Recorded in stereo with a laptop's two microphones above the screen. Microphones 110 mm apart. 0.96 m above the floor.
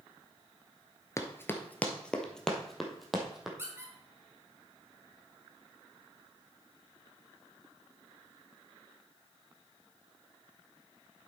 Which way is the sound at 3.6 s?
20° right (ahead or behind).